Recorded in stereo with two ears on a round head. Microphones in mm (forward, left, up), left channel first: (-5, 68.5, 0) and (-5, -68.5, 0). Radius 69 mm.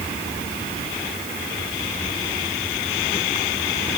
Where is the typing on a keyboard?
I don't hear typing on a keyboard.